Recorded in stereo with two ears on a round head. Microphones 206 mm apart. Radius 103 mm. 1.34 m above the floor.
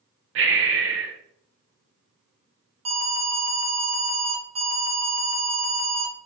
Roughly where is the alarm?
Right.